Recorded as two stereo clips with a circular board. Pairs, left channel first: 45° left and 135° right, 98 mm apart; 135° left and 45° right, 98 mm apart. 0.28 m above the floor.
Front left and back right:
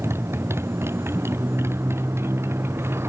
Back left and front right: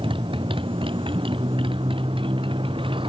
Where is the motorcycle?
70° right.